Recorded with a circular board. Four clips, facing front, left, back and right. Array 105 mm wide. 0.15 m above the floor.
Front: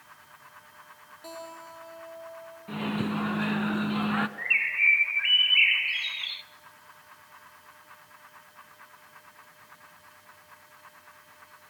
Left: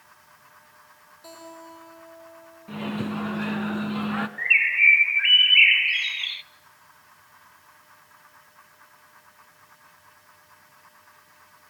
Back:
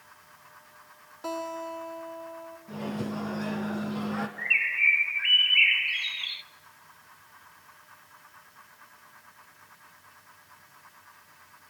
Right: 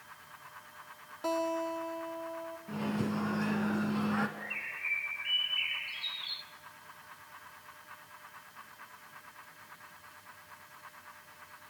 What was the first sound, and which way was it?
A guitar, 125° right.